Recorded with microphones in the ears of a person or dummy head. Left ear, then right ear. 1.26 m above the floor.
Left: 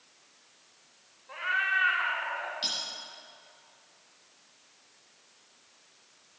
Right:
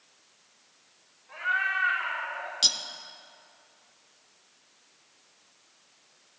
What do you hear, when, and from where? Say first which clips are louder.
1.3 s a cat meowing: right 1 dB; 25° left (ahead or behind), 1.9 m; by 2.5 s 40° left (ahead or behind), 1.6 m
2.6 s cutlery clinking: right 9 dB; 40° right (ahead or behind), 1.2 m